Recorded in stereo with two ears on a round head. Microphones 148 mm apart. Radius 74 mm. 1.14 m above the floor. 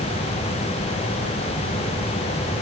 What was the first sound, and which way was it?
Only background noise.